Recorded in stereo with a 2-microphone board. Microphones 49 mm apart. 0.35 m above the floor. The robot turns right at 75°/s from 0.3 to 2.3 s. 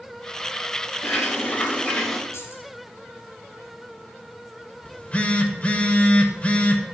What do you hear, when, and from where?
1.0 s a bird: 95° left, 3.5 m; by 2.2 s straight behind, 3.5 m
2.3 s keys jangling: 70° left (ahead or behind), 3.5 m
4.8 s a phone buzzing: 30° left (ahead or behind), 1.1 m